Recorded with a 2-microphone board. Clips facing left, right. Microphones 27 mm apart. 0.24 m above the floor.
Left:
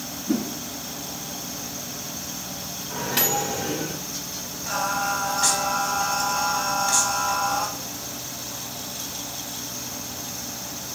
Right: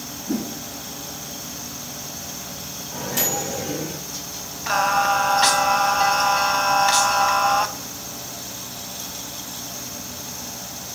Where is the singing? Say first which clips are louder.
Right 6 dB; 50° right (ahead or behind), 0.6 m.